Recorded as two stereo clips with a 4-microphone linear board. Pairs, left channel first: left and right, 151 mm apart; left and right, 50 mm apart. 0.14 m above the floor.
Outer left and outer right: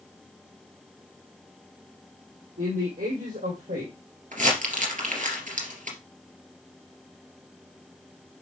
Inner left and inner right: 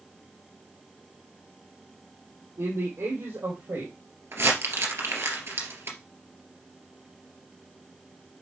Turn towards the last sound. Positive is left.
turn(degrees=-60)  # may be behind; listen again after turning